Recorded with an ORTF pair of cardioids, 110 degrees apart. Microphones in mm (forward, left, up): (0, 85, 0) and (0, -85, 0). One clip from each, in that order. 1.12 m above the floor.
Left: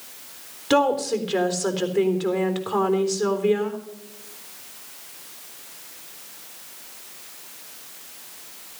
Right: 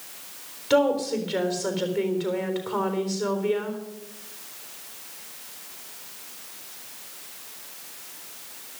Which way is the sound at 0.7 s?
40° left.